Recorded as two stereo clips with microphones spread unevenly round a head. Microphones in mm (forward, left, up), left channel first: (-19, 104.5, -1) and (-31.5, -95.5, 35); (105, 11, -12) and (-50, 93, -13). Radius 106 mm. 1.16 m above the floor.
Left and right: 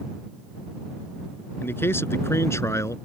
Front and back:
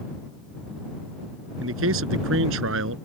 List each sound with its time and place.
1.6 s a man speaking: 165° left